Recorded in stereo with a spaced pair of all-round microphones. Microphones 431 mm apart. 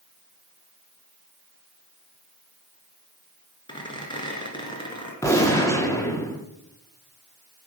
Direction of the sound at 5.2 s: 5° left (ahead or behind).